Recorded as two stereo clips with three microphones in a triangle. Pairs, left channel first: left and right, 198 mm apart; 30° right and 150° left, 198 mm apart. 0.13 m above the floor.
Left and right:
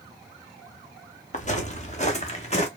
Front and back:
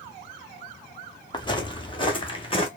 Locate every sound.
1.3 s footsteps: 35° left, 1.8 m; by 2.7 s 30° left, 2.5 m